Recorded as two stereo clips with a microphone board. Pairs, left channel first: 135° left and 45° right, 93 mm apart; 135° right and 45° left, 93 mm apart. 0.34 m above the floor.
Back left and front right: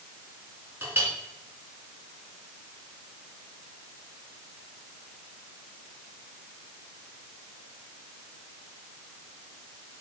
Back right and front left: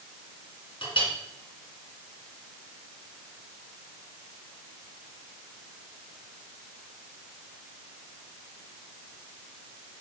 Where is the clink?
115° right, 2.5 m.